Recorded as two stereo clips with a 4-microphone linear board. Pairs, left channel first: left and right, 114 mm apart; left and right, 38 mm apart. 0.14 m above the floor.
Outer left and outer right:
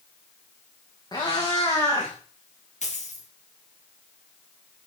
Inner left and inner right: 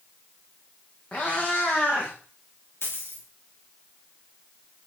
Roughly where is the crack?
I don't hear a crack.